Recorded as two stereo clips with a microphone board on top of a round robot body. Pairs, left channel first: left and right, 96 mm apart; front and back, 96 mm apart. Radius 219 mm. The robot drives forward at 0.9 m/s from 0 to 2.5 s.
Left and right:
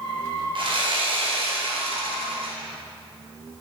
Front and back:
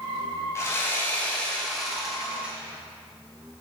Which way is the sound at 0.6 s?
60° right.